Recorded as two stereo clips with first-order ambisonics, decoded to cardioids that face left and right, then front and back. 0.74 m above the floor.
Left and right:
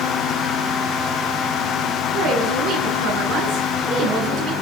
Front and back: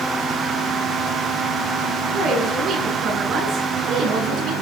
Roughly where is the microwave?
I don't hear a microwave.